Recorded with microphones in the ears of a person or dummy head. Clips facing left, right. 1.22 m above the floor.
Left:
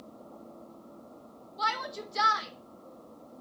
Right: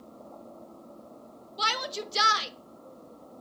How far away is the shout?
About 1.0 m.